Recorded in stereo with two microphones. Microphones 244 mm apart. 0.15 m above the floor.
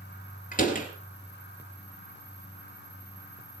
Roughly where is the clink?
I don't hear a clink.